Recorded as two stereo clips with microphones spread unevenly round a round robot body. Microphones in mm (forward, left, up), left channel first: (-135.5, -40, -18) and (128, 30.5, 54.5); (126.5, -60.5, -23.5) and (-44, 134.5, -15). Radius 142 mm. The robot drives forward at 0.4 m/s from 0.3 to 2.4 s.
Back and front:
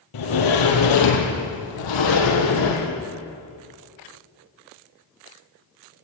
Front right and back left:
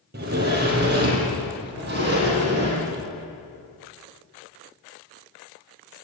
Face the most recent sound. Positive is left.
turn(degrees=-175)